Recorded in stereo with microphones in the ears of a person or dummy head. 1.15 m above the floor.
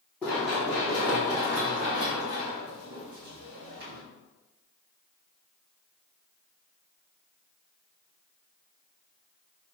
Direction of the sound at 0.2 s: 10° left (ahead or behind).